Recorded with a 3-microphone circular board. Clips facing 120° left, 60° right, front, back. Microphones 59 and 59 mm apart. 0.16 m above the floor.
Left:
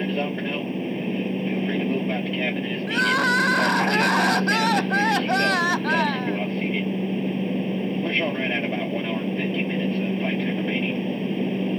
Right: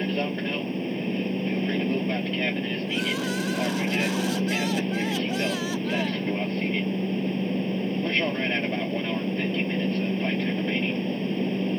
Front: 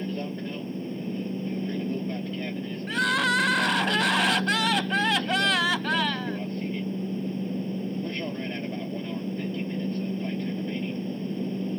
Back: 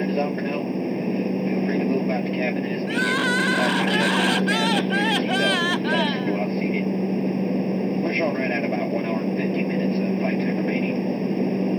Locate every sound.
0.0 s an aircraft: 160° right
2.9 s crying: 90° left